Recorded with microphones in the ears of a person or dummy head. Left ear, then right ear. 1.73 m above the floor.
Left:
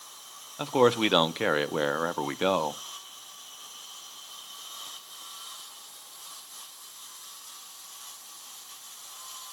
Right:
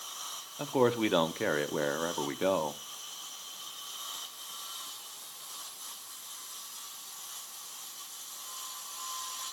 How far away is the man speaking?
About 0.5 m.